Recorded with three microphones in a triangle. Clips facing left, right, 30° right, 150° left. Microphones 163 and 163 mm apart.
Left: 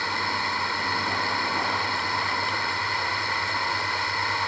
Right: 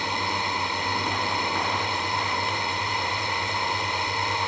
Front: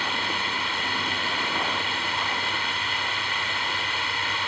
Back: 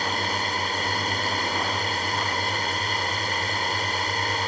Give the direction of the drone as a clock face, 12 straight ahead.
5 o'clock.